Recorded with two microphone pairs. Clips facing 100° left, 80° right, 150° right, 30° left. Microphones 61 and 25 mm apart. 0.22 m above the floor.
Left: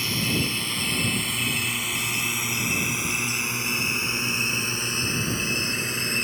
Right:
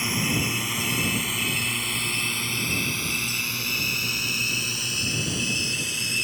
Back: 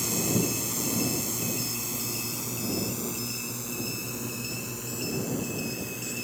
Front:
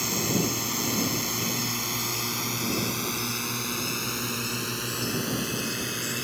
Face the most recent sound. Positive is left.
turn(degrees=55)